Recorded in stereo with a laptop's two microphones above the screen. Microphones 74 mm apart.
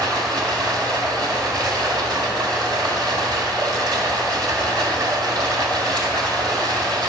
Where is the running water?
65° right (ahead or behind), 1.6 m.